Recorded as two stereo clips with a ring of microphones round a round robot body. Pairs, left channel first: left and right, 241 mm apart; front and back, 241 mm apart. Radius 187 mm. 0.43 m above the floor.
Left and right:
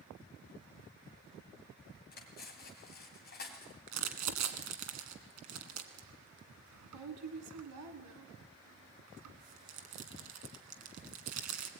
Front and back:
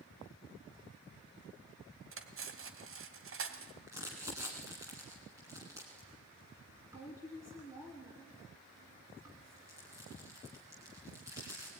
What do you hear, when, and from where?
2.1 s cutlery clinking: 150° left, 1.7 m
3.9 s crumpling: 100° right, 1.7 m